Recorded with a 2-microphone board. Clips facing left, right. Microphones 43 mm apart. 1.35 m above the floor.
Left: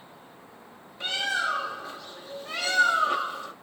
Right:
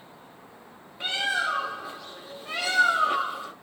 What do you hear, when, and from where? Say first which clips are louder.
1.0 s a bird: right 1 dB; 15° right (ahead or behind), 1.1 m